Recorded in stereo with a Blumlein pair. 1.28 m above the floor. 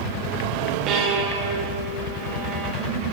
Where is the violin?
35° right, 0.9 m.